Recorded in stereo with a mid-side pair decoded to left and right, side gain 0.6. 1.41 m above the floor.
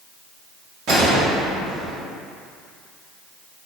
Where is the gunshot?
55° right, 1.9 m.